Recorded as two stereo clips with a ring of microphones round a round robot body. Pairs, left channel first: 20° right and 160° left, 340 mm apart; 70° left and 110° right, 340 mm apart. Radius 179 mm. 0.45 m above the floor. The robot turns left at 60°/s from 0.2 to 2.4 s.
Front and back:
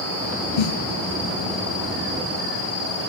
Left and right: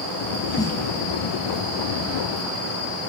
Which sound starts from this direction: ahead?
A snare drum, at 0.6 s.